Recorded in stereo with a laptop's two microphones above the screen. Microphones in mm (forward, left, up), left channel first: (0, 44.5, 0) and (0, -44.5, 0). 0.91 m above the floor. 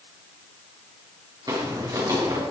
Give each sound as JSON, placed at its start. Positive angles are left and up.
{"t": 1.5, "sound": "footsteps", "side_deg": -45, "distance_m": 5.5}